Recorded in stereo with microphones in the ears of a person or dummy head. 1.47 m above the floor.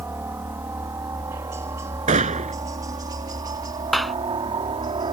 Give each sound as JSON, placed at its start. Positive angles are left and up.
{"t": 0.0, "sound": "a helicopter", "side_deg": -10}
{"t": 2.1, "sound": "a gunshot", "side_deg": -30}
{"t": 3.9, "sound": "a clap", "side_deg": 0}